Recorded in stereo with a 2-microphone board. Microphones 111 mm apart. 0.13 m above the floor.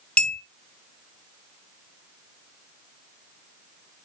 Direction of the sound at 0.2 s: 10° left (ahead or behind).